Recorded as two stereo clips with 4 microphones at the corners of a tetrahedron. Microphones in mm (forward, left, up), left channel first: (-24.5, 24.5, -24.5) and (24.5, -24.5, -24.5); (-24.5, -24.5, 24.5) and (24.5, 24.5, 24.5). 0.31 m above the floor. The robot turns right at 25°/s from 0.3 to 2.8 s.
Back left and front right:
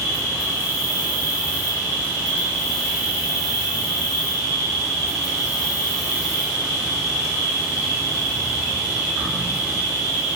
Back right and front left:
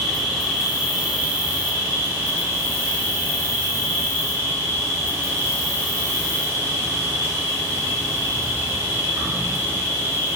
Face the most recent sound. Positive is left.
turn(degrees=25)